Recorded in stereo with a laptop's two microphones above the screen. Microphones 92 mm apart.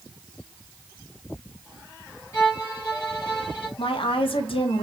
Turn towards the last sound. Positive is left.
turn(degrees=75)  # may be behind; listen again after turning